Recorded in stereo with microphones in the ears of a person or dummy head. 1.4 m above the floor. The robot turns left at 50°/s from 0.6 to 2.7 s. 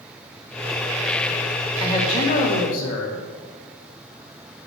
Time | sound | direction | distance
1.8 | a man speaking | 155° left | 3 m